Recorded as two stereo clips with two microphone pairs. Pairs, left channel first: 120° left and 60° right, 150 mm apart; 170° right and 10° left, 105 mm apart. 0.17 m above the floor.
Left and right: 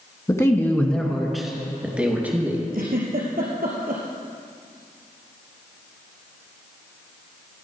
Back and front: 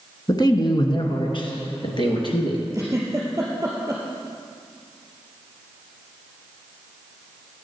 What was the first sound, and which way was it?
A man speaking, 175° left.